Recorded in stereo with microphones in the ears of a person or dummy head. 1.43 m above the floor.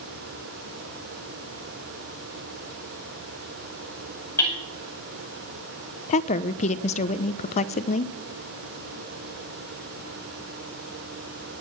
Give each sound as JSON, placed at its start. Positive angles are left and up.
{"t": 4.4, "sound": "hammering", "side_deg": 10, "distance_m": 5.0}
{"t": 6.1, "sound": "a woman speaking", "side_deg": 45, "distance_m": 0.6}